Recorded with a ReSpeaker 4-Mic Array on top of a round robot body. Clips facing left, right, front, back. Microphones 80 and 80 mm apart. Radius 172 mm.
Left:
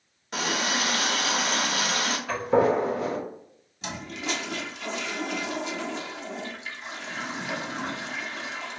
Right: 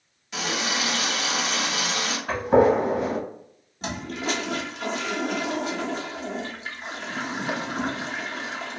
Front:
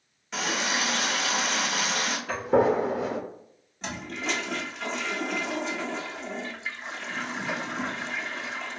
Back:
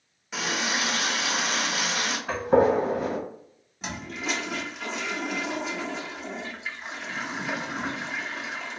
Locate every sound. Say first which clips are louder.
0.3 s a running tap: even, even; 95° left, 0.9 m
2.3 s a gunshot: right 4 dB, back 2 dB; 145° right, 1.2 m
3.8 s a toilet flushing: right 4 dB, even; 95° right, 1.0 m